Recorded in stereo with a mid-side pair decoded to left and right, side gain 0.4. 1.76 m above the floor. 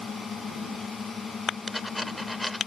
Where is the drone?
45° left.